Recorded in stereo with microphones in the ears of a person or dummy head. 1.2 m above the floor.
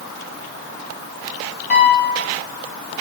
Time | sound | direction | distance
1.7 | a piano | 45° left (ahead or behind) | 2.5 m